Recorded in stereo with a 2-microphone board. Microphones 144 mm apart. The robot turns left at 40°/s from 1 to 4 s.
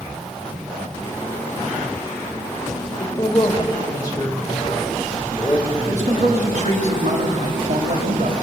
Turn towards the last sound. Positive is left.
turn(degrees=-60)  # may be behind; listen again after turning